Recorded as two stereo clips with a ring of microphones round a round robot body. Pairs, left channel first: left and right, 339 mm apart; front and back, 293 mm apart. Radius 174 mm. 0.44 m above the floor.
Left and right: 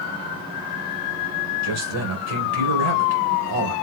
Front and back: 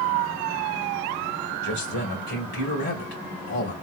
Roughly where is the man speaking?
Ahead right.